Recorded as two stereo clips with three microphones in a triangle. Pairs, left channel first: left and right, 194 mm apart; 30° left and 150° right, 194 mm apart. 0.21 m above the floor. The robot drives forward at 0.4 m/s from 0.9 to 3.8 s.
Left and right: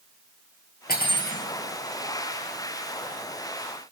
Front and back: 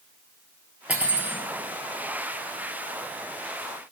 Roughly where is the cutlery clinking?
Behind left.